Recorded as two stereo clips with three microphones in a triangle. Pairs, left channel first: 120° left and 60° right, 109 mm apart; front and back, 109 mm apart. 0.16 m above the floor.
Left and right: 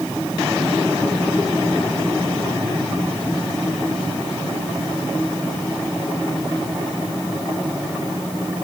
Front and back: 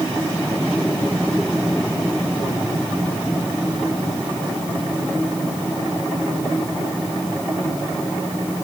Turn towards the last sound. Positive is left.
No sound to turn to.